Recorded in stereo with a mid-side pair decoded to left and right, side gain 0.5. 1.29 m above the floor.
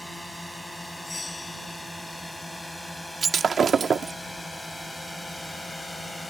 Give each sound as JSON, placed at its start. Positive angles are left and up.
{"t": 0.0, "sound": "a drone", "azimuth_deg": 5}
{"t": 1.1, "sound": "a bell", "azimuth_deg": 20}
{"t": 3.2, "sound": "breaking glass", "azimuth_deg": -40}